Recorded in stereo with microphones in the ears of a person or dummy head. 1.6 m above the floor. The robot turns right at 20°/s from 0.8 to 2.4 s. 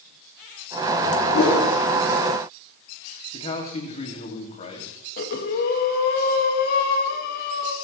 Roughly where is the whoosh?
Left.